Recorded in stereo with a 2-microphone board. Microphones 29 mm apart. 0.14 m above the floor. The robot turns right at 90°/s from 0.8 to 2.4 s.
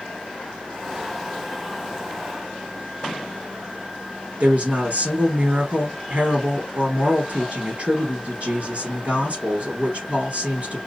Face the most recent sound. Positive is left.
turn(degrees=-50)  # may be behind; listen again after turning